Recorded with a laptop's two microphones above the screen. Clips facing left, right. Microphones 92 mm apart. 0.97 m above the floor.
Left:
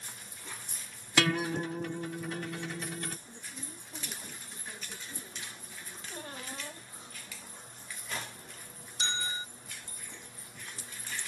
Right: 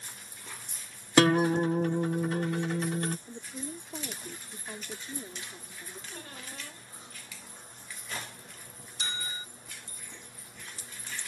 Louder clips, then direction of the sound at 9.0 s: Left 3 dB; 30° left (ahead or behind).